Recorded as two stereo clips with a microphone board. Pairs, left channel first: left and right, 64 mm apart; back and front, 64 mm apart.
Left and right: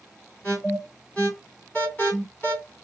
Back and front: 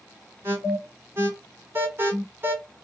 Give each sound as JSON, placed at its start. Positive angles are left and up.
{"t": 0.4, "sound": "an alarm", "azimuth_deg": 30, "distance_m": 2.0}